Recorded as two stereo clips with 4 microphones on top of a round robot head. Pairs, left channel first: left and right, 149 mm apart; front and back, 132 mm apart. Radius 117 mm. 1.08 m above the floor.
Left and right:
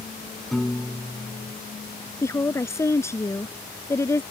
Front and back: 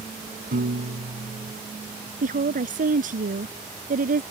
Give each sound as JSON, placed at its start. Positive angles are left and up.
{"t": 0.5, "sound": "a piano", "azimuth_deg": 180}
{"t": 2.2, "sound": "a woman speaking", "azimuth_deg": 160}